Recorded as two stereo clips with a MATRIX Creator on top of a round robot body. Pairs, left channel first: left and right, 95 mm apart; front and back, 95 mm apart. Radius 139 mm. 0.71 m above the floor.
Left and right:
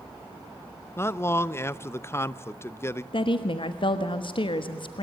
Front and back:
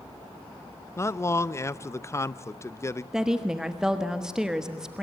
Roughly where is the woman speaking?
Left.